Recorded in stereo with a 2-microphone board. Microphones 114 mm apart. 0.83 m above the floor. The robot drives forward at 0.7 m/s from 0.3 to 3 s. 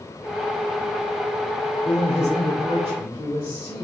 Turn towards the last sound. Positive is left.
turn(degrees=45)  # may be behind; listen again after turning